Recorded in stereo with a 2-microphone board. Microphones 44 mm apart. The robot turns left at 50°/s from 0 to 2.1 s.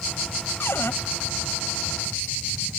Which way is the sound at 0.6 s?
70° left (ahead or behind).